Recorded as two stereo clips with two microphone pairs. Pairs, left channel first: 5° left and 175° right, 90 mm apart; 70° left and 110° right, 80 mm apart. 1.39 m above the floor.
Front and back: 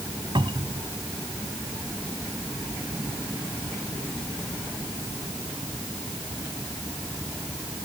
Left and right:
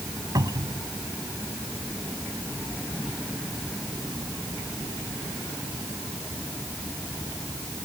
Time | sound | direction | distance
0.3 | a cupboard door | 150° right | ?